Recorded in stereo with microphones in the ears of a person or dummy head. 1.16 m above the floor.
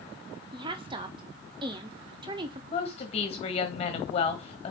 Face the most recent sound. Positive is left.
turn(degrees=30)  # may be behind; listen again after turning